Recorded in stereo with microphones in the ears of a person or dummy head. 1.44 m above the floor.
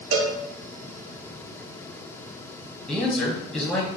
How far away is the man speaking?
About 0.8 m.